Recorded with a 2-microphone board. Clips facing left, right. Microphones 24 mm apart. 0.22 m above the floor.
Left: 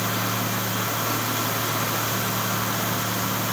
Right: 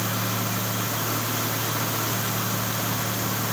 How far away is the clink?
No clink in this recording.